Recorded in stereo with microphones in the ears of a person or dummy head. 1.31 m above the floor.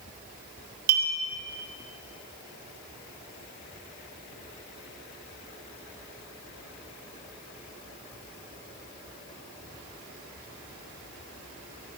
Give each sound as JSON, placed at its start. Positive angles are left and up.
{"t": 0.9, "sound": "a clink", "side_deg": -50, "distance_m": 1.4}